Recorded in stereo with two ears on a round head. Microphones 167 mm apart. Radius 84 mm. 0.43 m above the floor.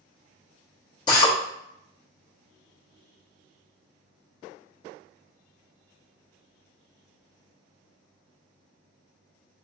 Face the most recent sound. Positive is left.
turn(degrees=25)  # may be behind; listen again after turning